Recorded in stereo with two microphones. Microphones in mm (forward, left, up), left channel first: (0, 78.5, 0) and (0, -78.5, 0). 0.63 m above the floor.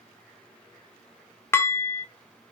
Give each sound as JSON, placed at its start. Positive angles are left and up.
{"t": 1.5, "sound": "dishes clattering", "side_deg": 15, "distance_m": 0.9}